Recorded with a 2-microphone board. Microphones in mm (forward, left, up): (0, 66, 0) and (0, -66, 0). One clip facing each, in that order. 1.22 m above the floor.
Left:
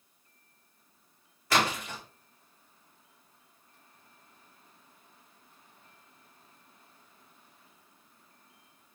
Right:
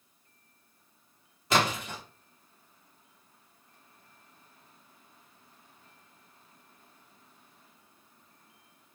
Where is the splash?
20° right (ahead or behind), 0.9 m.